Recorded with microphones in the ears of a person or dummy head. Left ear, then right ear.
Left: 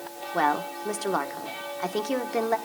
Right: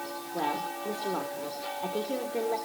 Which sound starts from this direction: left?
A woman speaking, at 0.3 s.